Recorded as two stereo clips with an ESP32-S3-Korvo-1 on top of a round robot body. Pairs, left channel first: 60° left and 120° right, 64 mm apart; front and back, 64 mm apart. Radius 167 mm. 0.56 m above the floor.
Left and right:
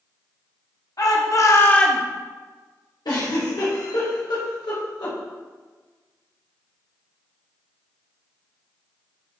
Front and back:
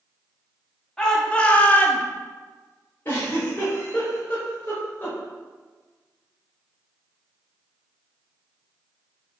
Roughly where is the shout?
Left.